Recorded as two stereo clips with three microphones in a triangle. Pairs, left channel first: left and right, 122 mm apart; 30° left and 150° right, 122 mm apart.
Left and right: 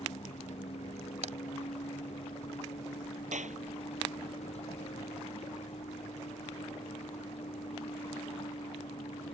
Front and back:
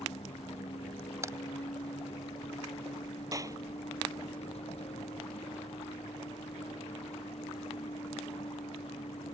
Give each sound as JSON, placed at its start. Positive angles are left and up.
{"t": 0.0, "sound": "a vehicle", "azimuth_deg": 65}
{"t": 1.2, "sound": "a crack", "azimuth_deg": -85}
{"t": 3.3, "sound": "a clap", "azimuth_deg": -90}